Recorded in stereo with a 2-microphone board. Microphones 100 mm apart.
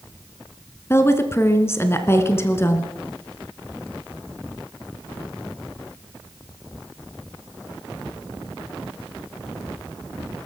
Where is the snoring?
I don't hear snoring.